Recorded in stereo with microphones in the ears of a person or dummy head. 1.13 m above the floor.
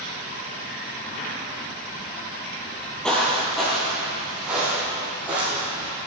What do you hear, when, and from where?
2.6 s footsteps: 10° left (ahead or behind), 1.7 m; by 5.9 s 15° right (ahead or behind), 3.5 m